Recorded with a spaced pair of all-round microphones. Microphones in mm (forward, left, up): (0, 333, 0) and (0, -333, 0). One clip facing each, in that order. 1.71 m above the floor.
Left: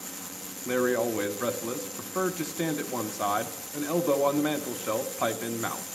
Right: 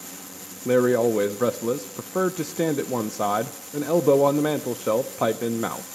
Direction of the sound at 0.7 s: 70° right (ahead or behind).